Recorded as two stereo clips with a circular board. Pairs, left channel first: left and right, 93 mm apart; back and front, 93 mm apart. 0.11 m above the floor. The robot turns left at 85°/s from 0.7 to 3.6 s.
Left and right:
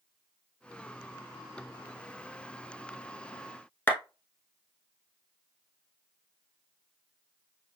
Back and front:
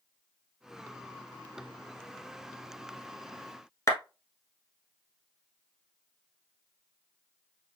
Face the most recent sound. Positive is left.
turn(degrees=145)